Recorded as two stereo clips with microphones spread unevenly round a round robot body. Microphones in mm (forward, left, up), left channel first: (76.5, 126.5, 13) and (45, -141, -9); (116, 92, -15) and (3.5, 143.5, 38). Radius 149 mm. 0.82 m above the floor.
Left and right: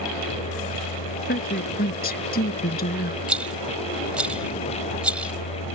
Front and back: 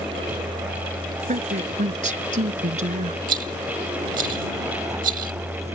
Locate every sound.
0.0 s a vehicle: 110° left; by 5.8 s 90° left
1.3 s a woman speaking: 145° left
3.3 s a rattle: 175° left